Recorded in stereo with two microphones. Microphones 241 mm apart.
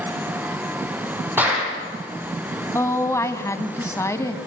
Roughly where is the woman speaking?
Centre.